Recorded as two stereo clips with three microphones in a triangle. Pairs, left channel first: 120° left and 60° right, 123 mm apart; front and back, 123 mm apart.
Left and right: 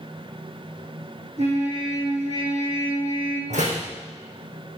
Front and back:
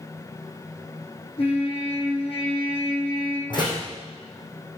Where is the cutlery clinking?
No cutlery clinking in this recording.